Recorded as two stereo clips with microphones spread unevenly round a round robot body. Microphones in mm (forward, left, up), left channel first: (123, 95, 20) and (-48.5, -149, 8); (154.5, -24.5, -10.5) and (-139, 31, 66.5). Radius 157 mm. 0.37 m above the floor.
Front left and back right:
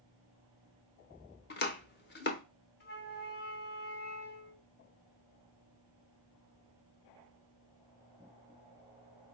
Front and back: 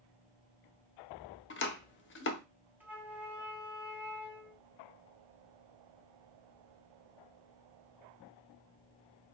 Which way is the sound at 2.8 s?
60° left.